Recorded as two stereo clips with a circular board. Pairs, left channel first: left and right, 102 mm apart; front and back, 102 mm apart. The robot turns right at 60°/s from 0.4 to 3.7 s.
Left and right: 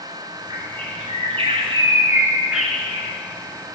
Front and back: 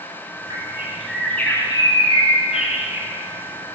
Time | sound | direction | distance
0.5 | a bird | 130° right | 2.0 m